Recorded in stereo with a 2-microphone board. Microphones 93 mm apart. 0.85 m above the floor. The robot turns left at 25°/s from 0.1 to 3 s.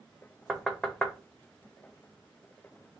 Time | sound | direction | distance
0.5 | knocking | 5° right (ahead or behind) | 0.5 m